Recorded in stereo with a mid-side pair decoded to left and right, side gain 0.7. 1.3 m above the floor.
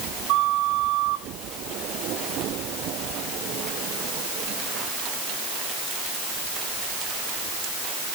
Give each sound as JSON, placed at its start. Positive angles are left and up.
{"t": 0.3, "sound": "a flute", "azimuth_deg": -50, "distance_m": 2.5}